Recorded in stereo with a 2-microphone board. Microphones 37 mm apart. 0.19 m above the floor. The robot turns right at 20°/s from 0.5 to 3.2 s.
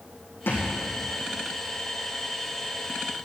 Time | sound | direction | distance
0.5 | a thud | 80° left | 3.5 m